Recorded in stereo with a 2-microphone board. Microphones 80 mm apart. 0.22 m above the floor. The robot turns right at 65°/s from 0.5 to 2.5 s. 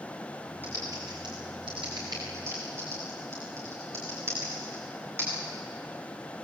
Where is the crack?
No crack in this recording.